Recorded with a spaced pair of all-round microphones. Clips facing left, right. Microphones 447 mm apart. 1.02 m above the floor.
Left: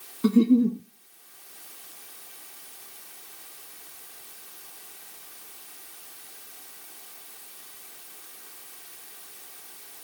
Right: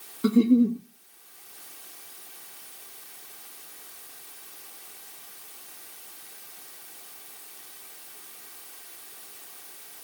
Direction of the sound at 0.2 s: 10° left (ahead or behind).